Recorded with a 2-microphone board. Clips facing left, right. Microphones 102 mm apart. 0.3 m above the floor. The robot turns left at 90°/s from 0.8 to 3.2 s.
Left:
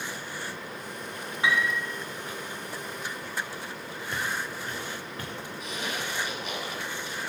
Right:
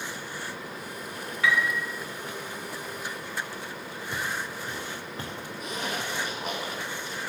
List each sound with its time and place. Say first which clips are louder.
1.4 s a piano: right 1 dB; 25° left, 1.6 m; by 1.8 s 5° right, 1.6 m
4.1 s footsteps: left 1 dB; 5° right (ahead or behind), 2.0 m; by 5.3 s 30° right (ahead or behind), 2.5 m
5.6 s a zipper: right 2 dB; 50° right (ahead or behind), 3 m